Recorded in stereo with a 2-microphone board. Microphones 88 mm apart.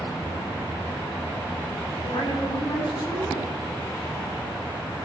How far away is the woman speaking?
About 4.5 m.